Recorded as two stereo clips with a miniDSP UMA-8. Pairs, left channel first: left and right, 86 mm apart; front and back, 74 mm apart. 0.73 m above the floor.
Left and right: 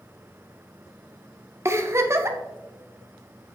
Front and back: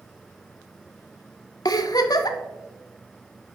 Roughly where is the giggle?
Ahead right.